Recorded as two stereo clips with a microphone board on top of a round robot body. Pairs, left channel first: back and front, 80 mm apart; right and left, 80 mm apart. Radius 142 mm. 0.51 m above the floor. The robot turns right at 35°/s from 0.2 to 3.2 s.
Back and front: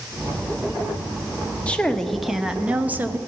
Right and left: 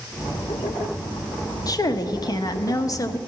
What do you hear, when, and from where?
1.7 s a woman speaking: 110° right, 0.9 m; by 3.2 s 55° right, 0.9 m